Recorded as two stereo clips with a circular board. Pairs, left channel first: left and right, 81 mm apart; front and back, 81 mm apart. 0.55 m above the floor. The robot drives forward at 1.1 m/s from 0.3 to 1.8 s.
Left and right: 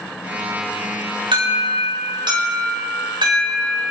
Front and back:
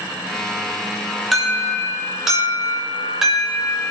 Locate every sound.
1.3 s an alarm: 90° right, 7.5 m; by 3.9 s 95° right, 8 m